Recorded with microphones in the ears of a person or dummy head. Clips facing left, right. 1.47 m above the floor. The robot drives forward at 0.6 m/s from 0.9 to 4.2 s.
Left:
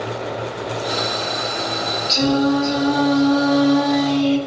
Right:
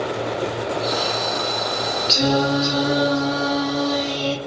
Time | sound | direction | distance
2.1 | singing | 25° right (ahead or behind) | 1.6 m